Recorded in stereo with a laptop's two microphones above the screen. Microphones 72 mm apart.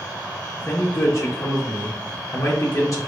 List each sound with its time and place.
0.6 s a man speaking: 45° left (ahead or behind), 0.7 m